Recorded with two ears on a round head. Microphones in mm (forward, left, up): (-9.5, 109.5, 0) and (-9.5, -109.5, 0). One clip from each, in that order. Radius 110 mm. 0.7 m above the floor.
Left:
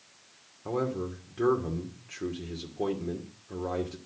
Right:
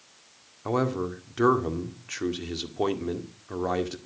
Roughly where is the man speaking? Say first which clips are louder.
Right 4 dB; right.